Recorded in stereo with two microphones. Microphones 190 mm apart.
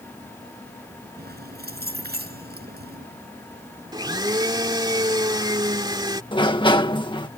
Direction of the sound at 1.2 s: 55° right (ahead or behind).